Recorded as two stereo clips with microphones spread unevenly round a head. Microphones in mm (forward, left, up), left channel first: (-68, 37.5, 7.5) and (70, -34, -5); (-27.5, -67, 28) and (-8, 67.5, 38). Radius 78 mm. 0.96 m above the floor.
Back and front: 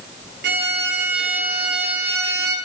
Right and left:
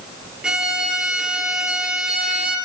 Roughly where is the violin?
Ahead.